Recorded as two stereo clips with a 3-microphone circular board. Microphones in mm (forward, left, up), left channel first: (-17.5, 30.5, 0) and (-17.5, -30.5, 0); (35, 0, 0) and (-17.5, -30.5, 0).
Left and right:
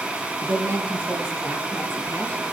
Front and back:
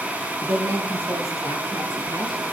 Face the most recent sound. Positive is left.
turn(degrees=-145)